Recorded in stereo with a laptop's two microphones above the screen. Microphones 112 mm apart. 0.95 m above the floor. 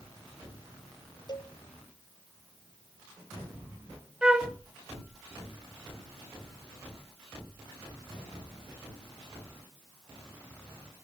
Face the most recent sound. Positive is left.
turn(degrees=-10)  # may be behind; listen again after turning